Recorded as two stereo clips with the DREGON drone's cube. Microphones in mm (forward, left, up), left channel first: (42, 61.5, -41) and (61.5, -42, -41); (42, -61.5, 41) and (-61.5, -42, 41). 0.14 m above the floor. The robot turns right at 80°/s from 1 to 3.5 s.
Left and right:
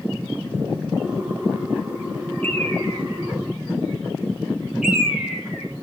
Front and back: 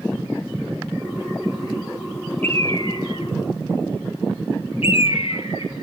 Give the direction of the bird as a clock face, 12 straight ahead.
3 o'clock.